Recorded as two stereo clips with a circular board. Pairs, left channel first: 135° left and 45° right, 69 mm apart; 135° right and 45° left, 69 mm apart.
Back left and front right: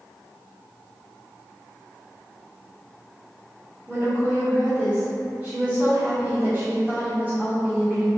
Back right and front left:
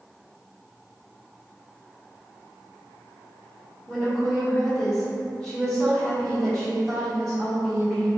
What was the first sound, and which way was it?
A woman speaking, 60° right.